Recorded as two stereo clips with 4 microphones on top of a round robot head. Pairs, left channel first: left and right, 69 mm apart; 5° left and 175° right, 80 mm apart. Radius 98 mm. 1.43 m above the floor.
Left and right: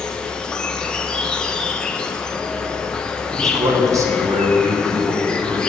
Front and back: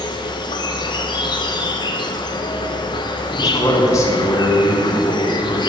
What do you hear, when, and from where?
0.0 s an insect: 10° left, 0.9 m
3.3 s a man speaking: 50° right, 1.9 m